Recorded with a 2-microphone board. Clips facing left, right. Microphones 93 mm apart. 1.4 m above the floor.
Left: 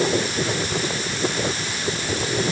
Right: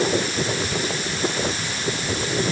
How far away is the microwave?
No microwave in this recording.